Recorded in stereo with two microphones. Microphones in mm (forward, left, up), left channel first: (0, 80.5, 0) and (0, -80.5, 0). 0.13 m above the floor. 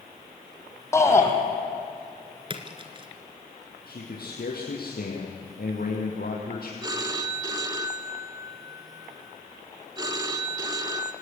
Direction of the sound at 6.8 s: 25° right (ahead or behind).